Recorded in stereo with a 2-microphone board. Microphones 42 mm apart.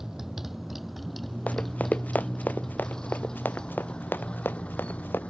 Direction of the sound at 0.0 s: 10° right (ahead or behind).